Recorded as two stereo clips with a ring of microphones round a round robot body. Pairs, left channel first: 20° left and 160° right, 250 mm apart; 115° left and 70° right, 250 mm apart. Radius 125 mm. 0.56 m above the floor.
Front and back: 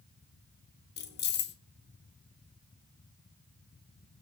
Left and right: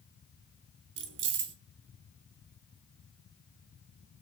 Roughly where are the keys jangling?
Ahead right.